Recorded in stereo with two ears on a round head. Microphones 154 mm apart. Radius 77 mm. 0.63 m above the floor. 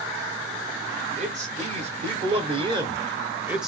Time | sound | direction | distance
1.2 | a man speaking | 40° right (ahead or behind) | 1.8 m